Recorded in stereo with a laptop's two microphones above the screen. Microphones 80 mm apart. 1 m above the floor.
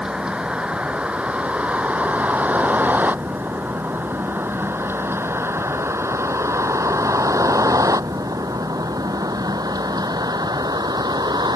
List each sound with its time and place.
0.0 s a vehicle: 10° right (ahead or behind); by 11.6 s 60° right (ahead or behind)